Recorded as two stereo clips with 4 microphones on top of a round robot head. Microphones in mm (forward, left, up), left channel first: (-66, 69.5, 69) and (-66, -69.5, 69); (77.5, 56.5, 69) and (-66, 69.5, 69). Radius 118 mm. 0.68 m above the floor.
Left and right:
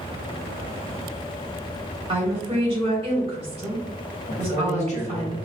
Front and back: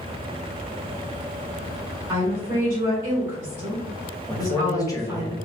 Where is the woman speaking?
120° right, 1.4 m.